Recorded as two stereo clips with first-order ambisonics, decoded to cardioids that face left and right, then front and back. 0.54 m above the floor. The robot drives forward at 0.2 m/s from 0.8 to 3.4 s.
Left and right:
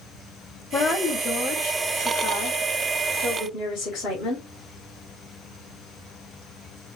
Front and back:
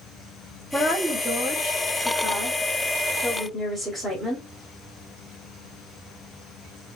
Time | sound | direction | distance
0.7 | a woman speaking | 85° left | 1.7 m